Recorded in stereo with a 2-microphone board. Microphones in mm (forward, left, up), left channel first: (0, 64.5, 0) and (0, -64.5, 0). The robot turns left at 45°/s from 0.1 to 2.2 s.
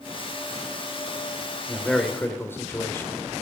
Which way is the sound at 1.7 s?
Centre (ahead or behind).